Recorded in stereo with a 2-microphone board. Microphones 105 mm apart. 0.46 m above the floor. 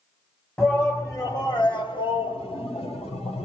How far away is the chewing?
No chewing in this recording.